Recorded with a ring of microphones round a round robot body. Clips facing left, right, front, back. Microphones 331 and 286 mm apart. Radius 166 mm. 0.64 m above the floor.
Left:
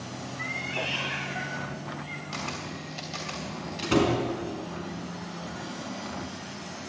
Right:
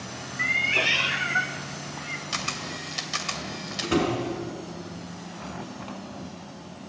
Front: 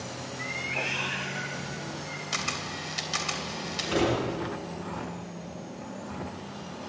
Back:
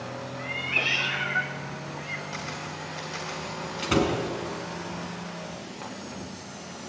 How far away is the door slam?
About 4.5 m.